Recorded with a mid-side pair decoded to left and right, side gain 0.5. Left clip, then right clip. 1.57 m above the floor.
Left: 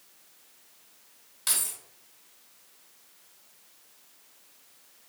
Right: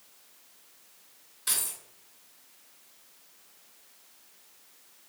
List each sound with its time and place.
1.5 s keys jangling: 65° left, 1.6 m